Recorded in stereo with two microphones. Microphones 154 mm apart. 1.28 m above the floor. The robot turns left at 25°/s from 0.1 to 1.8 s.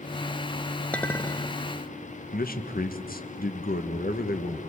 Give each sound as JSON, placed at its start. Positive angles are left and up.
{"t": 0.9, "sound": "a clink", "side_deg": 10, "distance_m": 0.7}
{"t": 2.3, "sound": "a man speaking", "side_deg": 80, "distance_m": 1.3}